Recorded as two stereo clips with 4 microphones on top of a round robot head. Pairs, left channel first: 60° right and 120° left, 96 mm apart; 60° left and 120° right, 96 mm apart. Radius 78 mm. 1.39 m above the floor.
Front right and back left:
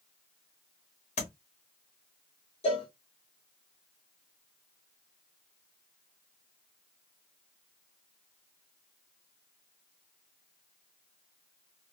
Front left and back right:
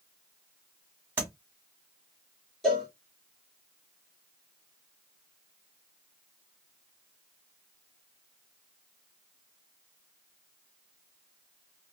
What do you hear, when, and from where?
1.2 s tapping: 50° right, 1.9 m
2.6 s a cowbell: 30° right, 1.7 m